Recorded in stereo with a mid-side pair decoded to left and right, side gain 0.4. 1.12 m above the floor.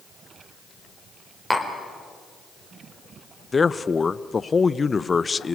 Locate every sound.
1.5 s tapping: 5° right, 4 m
3.5 s a man speaking: 30° left, 0.6 m